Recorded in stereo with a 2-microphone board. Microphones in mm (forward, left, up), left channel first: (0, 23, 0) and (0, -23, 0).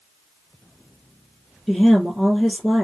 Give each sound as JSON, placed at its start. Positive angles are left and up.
{"t": 1.7, "sound": "a woman speaking", "side_deg": 0, "distance_m": 2.5}